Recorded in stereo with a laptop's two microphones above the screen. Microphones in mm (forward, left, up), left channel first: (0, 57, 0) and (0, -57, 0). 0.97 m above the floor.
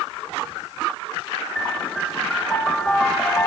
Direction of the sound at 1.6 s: 10° left (ahead or behind).